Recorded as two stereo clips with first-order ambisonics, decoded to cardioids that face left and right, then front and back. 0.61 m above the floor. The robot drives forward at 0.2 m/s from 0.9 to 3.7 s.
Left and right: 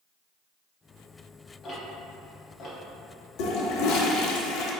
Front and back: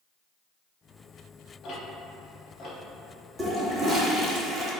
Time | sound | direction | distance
1.6 | ticking | 35° left | 1.0 m
3.4 | a toilet flushing | 100° left | 0.5 m